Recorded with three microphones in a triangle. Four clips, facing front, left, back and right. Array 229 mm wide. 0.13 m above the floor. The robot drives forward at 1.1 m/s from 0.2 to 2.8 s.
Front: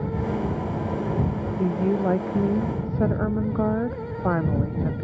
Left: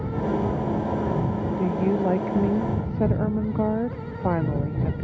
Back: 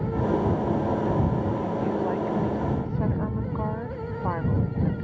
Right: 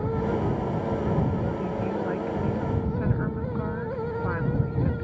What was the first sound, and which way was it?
A woman speaking, 45° left.